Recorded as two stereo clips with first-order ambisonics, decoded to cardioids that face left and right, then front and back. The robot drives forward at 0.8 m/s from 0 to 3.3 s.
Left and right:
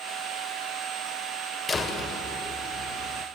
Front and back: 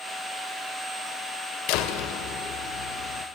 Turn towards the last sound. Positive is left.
turn(degrees=45)